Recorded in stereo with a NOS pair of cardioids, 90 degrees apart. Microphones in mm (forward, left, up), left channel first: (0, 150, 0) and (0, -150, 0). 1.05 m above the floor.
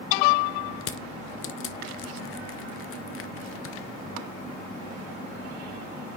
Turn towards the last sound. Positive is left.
turn(degrees=45)